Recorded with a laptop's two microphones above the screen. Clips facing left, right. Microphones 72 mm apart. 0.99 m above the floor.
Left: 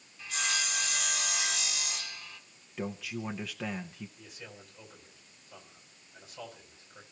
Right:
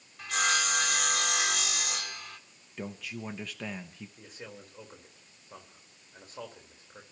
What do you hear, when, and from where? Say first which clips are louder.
0.2 s sawing: right 6 dB; 60° right (ahead or behind), 1.4 m
2.8 s a man speaking: left 2 dB; centre (ahead or behind), 0.8 m
4.2 s a man speaking: right 3 dB; 40° right (ahead or behind), 4 m